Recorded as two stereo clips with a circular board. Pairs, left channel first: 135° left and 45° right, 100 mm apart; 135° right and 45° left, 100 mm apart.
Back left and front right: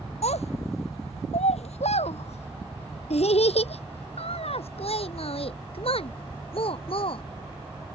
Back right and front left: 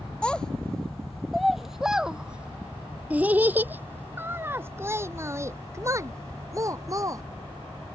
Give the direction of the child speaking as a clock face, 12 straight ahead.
7 o'clock.